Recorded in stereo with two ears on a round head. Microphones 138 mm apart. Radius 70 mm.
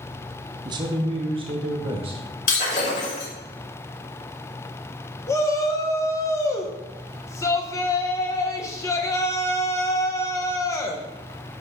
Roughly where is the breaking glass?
Left.